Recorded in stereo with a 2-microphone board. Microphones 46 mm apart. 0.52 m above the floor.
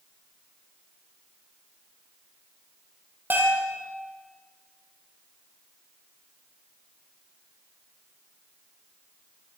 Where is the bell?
50° right (ahead or behind), 8.5 m.